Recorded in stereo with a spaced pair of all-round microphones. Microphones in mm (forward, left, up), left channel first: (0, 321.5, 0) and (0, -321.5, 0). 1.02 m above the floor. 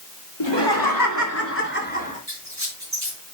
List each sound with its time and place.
0.4 s laughter: 45° left (ahead or behind), 2.5 m; by 2.2 s 10° left (ahead or behind), 3.5 m
2.3 s a squeak: 25° right (ahead or behind), 6 m